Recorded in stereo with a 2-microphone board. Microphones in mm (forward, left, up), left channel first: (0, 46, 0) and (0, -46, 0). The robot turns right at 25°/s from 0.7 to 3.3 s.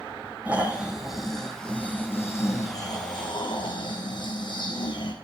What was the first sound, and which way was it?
Snoring, 15° right.